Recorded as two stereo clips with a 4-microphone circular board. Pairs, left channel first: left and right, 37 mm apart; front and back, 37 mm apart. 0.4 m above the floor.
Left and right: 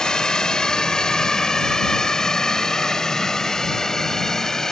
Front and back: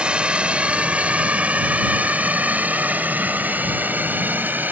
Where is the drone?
145° left; by 4.7 s 165° left.